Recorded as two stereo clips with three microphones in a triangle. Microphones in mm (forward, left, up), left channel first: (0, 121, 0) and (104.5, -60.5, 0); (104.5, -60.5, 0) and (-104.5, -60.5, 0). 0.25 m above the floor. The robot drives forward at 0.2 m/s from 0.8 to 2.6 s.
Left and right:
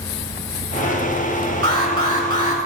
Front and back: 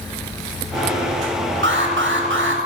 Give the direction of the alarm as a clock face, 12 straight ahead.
6 o'clock.